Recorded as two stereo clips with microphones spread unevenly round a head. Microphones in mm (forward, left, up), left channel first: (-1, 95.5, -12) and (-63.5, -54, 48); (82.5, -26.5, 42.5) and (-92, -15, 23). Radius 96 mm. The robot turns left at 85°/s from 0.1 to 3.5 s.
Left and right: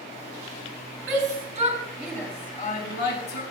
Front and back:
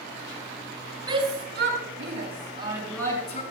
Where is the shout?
115° right, 7.5 m; by 3.4 s 45° left, 7.5 m.